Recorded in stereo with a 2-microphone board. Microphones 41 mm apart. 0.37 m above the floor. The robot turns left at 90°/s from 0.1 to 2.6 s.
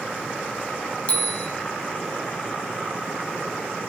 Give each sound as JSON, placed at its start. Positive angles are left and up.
{"t": 1.1, "sound": "a bicycle bell", "azimuth_deg": 145, "distance_m": 2.0}